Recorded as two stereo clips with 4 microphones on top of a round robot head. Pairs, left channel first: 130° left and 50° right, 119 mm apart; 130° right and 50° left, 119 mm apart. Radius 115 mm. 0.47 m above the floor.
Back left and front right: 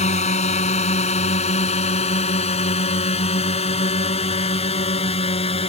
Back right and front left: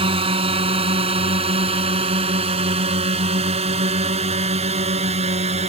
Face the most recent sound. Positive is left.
turn(degrees=90)